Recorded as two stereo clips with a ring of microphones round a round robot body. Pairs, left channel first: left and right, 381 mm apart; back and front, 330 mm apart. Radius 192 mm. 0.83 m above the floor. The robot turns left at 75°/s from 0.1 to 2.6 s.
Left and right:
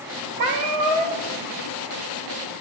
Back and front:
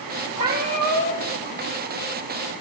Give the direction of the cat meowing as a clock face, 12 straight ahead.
2 o'clock.